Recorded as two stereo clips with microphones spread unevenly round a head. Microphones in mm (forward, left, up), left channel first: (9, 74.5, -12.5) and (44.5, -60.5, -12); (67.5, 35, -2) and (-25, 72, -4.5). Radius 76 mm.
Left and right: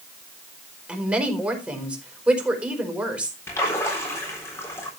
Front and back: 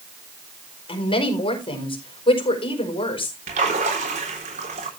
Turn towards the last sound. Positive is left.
turn(degrees=180)